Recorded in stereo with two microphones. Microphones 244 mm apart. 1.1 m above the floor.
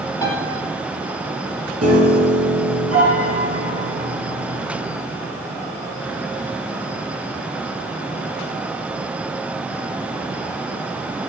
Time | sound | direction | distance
0.2 | a piano | 15° left (ahead or behind) | 3.5 m
1.8 | a piano | 80° right | 6 m